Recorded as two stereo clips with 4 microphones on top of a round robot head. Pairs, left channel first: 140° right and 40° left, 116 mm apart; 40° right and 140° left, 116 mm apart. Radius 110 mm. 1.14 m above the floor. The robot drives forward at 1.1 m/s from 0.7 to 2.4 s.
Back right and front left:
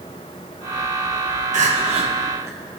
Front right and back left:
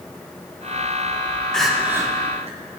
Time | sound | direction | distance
1.5 | crying | 45° left | 1.0 m